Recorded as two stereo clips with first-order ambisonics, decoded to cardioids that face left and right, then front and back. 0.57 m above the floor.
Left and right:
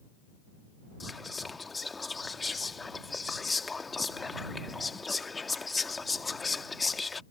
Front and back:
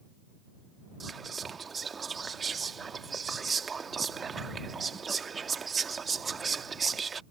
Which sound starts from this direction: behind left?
Whispering, at 1.0 s.